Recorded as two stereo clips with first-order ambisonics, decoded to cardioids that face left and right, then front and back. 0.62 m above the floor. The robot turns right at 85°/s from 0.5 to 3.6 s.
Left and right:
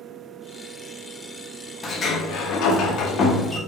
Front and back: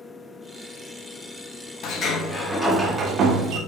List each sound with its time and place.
1.8 s a sliding door: 20° left, 0.6 m; by 3.6 s 170° left, 0.6 m